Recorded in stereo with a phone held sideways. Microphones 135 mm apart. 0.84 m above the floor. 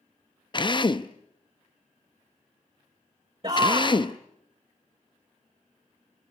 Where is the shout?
40° right (ahead or behind), 3 m.